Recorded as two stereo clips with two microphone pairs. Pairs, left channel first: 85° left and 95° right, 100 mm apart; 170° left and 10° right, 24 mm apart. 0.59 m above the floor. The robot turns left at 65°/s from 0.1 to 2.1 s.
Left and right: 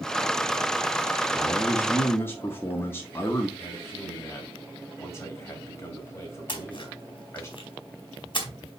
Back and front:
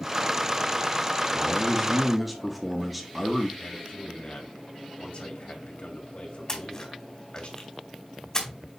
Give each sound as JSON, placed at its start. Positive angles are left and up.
{"t": 1.3, "sound": "a man speaking", "azimuth_deg": 130, "distance_m": 1.3}
{"t": 3.6, "sound": "a man speaking", "azimuth_deg": 150, "distance_m": 2.5}
{"t": 6.5, "sound": "a splash", "azimuth_deg": 115, "distance_m": 2.0}